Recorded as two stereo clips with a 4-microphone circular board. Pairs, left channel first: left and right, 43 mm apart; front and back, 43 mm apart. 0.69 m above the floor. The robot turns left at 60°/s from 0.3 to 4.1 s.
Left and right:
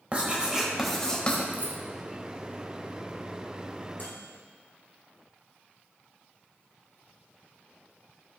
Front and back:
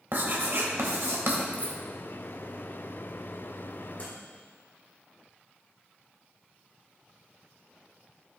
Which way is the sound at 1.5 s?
35° right.